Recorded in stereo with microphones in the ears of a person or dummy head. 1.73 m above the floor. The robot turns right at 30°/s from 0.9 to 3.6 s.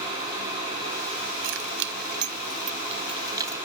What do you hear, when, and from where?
1.4 s keys jangling: 80° right; by 3.6 s 15° right (ahead or behind)